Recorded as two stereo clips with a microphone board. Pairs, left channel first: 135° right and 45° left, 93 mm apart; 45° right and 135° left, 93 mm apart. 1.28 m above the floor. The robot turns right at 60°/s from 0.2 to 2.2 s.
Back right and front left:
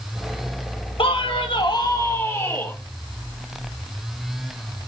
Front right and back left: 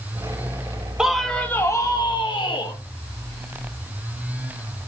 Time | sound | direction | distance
1.0 | a man speaking | 145° right | 1.9 m